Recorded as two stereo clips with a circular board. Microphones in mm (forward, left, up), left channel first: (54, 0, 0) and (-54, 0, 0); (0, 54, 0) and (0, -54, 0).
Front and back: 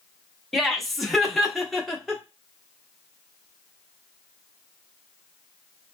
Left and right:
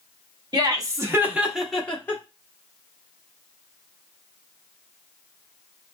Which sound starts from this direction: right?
Laughter, at 0.5 s.